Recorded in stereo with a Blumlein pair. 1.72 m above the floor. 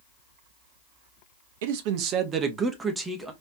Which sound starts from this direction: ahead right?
A man speaking, at 1.6 s.